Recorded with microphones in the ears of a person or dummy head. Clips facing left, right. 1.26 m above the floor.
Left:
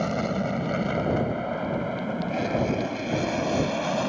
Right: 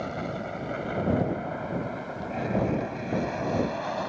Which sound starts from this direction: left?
An aircraft, at 0.0 s.